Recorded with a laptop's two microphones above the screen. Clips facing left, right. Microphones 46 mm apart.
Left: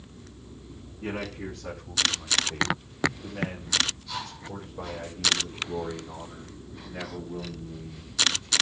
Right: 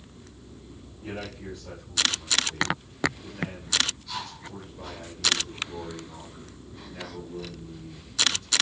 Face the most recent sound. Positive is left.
turn(degrees=20)  # may be behind; listen again after turning